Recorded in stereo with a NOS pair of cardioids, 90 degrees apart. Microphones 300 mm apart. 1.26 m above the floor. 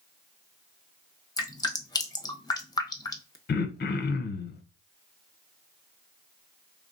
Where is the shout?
No shout in this recording.